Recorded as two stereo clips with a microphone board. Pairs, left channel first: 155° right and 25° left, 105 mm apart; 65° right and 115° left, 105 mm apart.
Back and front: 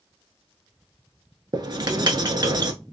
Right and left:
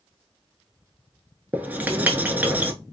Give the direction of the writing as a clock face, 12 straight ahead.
11 o'clock.